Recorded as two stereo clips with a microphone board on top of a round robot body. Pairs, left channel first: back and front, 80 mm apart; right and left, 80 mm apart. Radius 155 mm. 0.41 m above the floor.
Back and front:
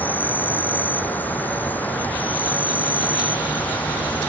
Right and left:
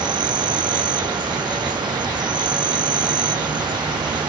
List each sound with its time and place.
0.0 s an insect: 110° left